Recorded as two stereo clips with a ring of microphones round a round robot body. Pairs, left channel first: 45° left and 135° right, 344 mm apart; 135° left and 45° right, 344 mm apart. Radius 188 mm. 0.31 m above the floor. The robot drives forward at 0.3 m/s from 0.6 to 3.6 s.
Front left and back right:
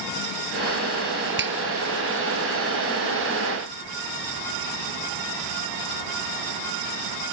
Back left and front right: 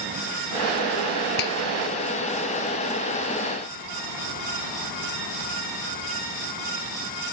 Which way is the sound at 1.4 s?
165° left.